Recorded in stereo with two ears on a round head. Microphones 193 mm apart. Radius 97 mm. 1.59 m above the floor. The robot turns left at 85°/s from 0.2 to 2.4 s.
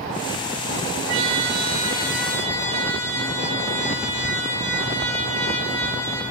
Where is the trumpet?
85° right, 2.0 m; by 6.2 s 165° left, 2.0 m.